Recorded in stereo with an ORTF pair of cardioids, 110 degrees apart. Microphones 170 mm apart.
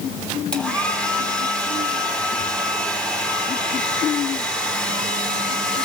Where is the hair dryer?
5° left, 4 m.